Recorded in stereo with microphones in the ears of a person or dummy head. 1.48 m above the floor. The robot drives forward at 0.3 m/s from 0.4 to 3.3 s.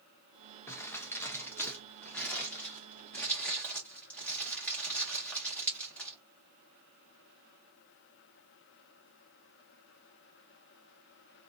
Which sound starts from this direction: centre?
Crumpling, at 0.7 s.